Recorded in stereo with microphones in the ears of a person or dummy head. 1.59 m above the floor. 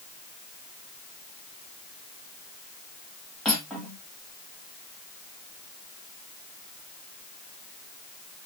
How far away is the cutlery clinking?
About 1.3 m.